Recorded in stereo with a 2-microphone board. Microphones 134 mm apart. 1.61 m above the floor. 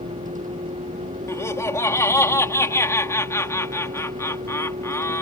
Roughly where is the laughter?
Centre.